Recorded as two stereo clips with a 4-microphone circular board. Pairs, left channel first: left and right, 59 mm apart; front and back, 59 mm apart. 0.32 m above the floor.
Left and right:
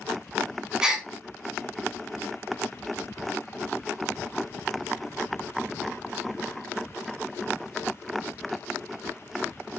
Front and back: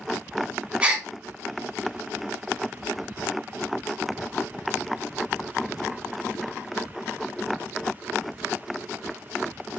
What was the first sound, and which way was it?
A gasp, 145° right.